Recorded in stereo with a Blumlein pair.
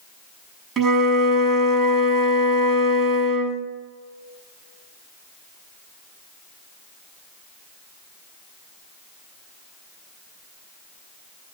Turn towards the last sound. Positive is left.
turn(degrees=-25)